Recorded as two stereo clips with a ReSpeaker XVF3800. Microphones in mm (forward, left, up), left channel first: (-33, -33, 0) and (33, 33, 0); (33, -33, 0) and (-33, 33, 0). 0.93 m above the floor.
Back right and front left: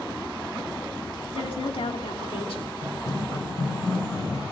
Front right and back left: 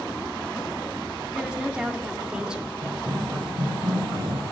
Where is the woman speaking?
145° right, 1.9 m.